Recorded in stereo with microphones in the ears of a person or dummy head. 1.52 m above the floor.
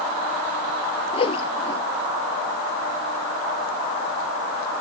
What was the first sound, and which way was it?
A whoosh, 35° left (ahead or behind).